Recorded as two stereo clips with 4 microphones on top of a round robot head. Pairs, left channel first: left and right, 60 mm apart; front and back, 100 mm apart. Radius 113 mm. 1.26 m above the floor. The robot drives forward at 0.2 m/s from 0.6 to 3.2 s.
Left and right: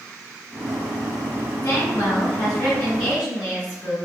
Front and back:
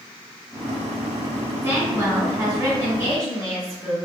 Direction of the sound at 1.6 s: 110° left.